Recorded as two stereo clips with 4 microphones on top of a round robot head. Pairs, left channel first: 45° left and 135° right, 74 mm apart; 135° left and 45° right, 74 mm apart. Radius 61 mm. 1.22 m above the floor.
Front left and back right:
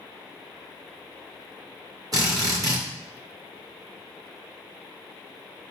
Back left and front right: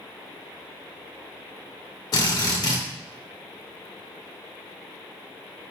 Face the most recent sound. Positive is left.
turn(degrees=180)